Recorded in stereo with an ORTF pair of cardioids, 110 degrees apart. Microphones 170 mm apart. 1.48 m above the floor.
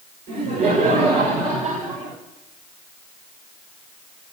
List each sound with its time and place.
0.3 s laughter: 65° right, 5.5 m